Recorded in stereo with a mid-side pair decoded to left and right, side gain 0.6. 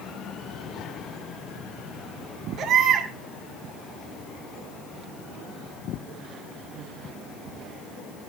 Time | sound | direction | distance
2.6 | a baby crying | 55° right | 8.5 m